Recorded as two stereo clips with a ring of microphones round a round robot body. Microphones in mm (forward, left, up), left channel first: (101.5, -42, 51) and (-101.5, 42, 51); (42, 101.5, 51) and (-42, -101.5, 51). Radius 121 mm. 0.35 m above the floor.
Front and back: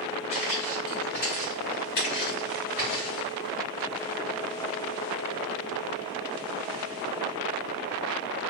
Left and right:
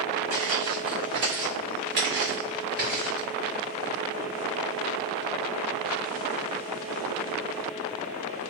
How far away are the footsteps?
About 1.7 m.